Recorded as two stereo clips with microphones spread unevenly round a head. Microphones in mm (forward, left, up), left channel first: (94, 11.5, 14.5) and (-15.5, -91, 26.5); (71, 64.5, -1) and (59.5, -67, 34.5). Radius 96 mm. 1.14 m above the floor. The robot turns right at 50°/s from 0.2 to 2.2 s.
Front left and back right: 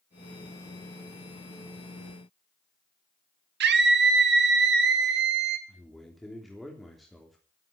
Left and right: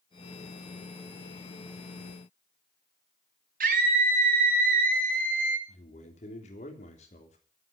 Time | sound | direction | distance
3.6 | a scream | 145° right | 2 m
5.7 | a man speaking | 135° left | 3 m